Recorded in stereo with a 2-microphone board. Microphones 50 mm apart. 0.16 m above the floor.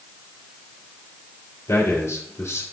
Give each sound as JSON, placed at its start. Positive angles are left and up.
{"t": 1.7, "sound": "a man speaking", "side_deg": 65, "distance_m": 3.5}